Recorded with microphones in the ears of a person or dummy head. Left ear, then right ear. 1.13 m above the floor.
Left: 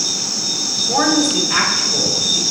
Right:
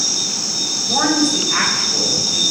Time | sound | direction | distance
0.9 | a woman speaking | 90° left | 4.5 m